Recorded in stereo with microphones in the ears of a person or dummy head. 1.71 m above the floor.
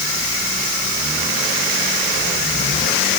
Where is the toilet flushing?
No toilet flushing in this recording.